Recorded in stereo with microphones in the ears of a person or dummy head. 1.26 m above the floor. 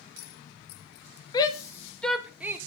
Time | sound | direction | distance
1.3 | a shout | 25° left (ahead or behind) | 1.4 m